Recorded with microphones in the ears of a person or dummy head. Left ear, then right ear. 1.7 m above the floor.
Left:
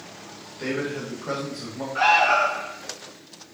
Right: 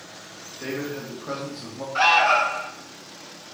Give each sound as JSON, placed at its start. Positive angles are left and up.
{"t": 0.6, "sound": "a man speaking", "side_deg": 5, "distance_m": 2.0}
{"t": 1.9, "sound": "an alarm", "side_deg": -35, "distance_m": 1.2}